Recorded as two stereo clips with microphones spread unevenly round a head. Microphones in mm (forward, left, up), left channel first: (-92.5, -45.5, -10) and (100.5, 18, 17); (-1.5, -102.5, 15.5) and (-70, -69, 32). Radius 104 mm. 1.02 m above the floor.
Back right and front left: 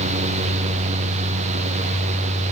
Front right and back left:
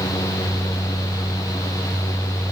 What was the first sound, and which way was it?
Only background noise.